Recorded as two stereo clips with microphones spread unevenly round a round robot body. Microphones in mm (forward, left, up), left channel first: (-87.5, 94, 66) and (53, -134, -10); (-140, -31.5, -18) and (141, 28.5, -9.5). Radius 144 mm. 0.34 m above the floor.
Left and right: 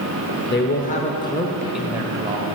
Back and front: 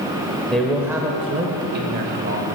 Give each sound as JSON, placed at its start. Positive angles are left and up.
{"t": 0.5, "sound": "a man speaking", "azimuth_deg": 115, "distance_m": 1.0}